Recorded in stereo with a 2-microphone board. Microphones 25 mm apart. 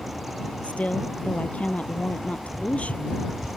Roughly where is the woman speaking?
Left.